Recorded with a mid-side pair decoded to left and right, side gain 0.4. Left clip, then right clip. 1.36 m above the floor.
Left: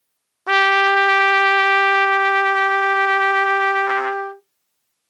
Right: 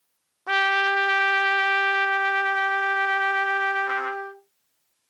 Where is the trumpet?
55° left, 0.6 m.